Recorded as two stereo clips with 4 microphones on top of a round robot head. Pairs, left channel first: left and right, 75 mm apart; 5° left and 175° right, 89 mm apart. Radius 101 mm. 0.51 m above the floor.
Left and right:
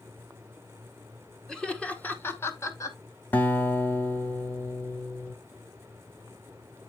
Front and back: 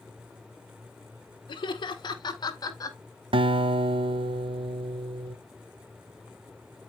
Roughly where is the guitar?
Behind.